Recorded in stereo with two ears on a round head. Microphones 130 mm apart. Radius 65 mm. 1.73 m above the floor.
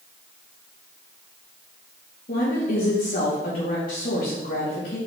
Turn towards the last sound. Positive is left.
turn(degrees=60)  # may be behind; listen again after turning